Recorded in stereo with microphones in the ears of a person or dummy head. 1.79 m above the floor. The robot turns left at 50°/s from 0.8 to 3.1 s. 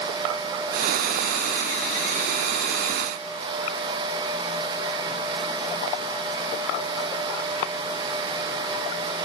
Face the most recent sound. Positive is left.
No sound to turn to.